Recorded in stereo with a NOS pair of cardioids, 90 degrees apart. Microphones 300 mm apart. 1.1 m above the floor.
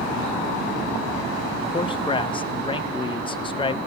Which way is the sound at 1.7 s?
15° left.